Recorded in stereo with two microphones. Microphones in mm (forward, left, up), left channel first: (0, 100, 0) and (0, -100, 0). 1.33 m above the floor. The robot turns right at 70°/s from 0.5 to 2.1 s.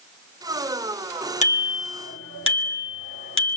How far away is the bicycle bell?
About 3 m.